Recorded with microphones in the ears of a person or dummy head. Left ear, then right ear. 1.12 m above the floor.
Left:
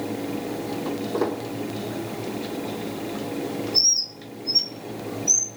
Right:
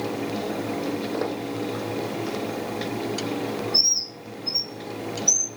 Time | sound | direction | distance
0.8 | footsteps | 10° right (ahead or behind) | 2 m
3.7 | a bird | 15° right (ahead or behind) | 0.8 m